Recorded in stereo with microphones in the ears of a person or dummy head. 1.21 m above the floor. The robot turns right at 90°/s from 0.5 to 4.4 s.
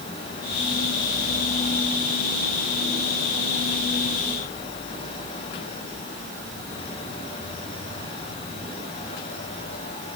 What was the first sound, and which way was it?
Only background noise.